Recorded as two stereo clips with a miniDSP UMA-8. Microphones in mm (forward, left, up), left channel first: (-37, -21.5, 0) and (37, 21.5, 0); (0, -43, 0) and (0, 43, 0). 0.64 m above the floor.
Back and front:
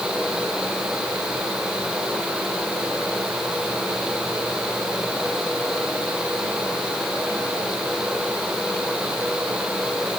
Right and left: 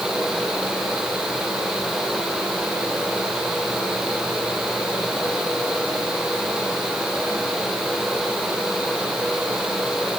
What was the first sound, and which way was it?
Only background noise.